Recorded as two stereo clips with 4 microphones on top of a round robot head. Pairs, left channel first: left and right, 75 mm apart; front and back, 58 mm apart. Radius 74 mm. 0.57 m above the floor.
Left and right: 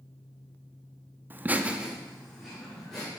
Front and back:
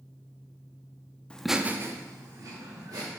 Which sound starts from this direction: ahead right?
Laughter, at 1.3 s.